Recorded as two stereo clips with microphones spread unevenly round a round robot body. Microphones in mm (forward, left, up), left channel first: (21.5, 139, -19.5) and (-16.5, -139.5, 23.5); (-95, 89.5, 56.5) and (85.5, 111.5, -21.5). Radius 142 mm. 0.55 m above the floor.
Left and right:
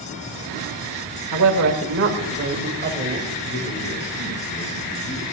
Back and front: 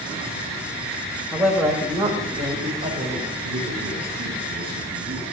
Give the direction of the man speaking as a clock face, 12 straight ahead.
11 o'clock.